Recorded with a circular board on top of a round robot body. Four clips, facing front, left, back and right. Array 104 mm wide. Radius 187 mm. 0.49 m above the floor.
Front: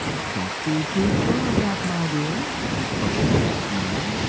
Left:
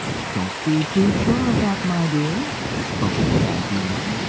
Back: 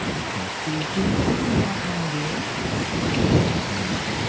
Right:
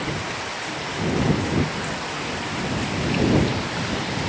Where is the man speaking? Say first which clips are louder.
Left 9 dB, front 3 dB; 75° left.